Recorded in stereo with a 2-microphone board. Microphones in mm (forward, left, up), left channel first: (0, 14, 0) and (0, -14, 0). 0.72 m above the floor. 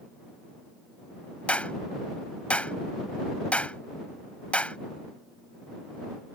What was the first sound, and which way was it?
A clap, 55° left (ahead or behind).